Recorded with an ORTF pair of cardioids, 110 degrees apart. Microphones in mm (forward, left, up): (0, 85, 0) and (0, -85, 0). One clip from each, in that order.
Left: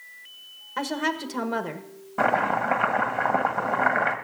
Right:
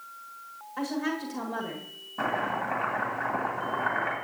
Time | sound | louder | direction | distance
0.8 | a woman speaking | left 5 dB | 60° left | 1.4 m
2.2 | chopping | left 7 dB | 55° left | 1.6 m